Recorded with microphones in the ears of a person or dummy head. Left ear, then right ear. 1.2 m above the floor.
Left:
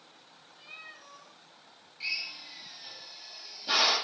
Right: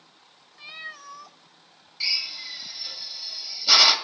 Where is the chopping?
No chopping in this recording.